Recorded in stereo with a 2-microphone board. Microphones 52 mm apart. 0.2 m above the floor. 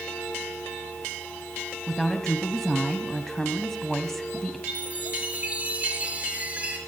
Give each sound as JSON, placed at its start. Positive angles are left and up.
{"t": 1.9, "sound": "a woman speaking", "side_deg": 5, "distance_m": 1.5}
{"t": 4.7, "sound": "a chime", "side_deg": -30, "distance_m": 4.0}